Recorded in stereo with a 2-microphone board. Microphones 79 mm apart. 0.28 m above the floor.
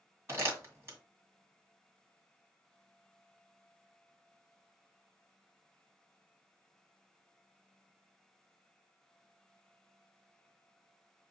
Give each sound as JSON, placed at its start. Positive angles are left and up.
{"t": 0.3, "sound": "crumpling", "side_deg": -30, "distance_m": 2.0}